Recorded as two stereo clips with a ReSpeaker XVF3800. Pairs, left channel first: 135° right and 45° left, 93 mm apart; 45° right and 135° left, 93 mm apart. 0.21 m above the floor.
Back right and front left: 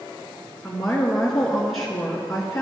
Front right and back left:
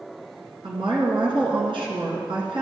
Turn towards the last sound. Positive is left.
turn(degrees=135)